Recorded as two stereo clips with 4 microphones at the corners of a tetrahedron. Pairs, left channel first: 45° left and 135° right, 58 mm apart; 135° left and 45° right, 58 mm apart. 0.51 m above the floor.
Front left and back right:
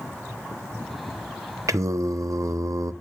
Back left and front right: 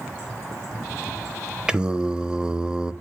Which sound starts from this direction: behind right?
Singing, at 1.7 s.